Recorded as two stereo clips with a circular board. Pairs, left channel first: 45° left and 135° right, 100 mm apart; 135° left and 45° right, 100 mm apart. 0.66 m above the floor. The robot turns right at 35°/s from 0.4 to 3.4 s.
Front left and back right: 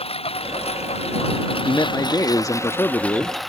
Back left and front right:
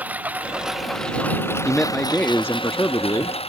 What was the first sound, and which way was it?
A lawn mower, 30° left.